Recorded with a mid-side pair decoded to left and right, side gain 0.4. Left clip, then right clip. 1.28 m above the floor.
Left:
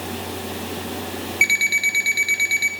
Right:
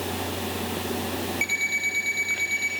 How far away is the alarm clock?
About 5 m.